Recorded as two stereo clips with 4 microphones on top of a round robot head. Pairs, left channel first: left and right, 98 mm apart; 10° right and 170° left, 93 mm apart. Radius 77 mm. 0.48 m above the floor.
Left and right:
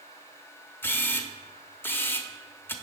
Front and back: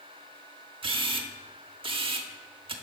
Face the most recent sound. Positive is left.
turn(degrees=155)